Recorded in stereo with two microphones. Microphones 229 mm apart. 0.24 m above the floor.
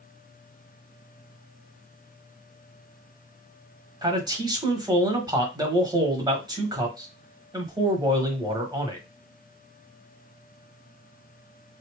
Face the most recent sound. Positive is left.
turn(degrees=-15)  # may be behind; listen again after turning